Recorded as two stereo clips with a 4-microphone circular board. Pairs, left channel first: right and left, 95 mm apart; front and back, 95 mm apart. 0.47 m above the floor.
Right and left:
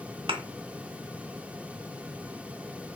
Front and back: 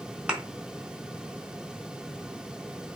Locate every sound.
0.3 s a thud: 100° left, 1.0 m